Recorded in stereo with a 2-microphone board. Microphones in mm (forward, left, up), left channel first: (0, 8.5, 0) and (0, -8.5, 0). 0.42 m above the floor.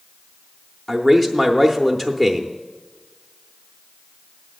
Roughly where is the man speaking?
Centre.